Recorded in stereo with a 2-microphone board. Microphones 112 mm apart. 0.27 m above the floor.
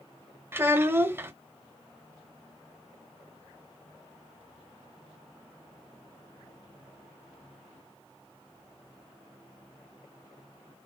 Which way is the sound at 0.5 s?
20° right (ahead or behind).